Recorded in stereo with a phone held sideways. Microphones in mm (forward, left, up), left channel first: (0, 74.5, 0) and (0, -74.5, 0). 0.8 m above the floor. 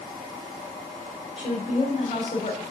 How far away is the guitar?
I don't hear a guitar.